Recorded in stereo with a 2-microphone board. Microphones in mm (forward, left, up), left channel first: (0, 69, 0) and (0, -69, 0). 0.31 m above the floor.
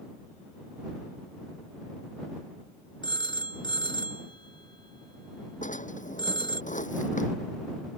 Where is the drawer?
70° left (ahead or behind).